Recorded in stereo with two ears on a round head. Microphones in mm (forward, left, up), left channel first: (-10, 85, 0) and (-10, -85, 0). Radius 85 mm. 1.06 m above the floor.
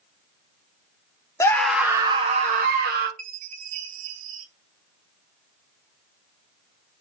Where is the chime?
45° right (ahead or behind), 1.0 m.